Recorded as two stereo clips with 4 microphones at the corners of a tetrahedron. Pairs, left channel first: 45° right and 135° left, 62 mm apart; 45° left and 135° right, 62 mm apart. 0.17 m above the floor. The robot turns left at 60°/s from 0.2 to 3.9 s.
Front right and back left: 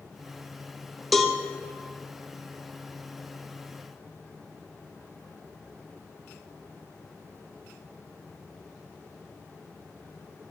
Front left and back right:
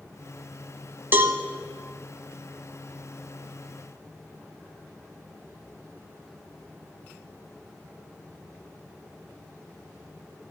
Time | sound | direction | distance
1.1 | a cowbell | 135° right | 0.8 m